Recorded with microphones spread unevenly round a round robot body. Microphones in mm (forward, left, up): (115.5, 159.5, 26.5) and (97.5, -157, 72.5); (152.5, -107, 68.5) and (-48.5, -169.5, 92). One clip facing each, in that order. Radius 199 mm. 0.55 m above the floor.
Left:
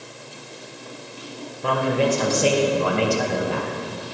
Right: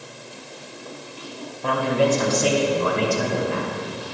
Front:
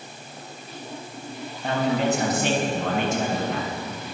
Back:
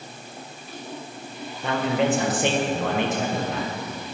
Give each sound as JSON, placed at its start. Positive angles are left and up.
{"t": 1.6, "sound": "a man speaking", "azimuth_deg": 155, "distance_m": 2.5}